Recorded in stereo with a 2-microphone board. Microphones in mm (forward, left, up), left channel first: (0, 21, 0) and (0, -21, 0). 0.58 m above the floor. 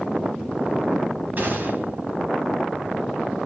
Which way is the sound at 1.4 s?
45° right (ahead or behind).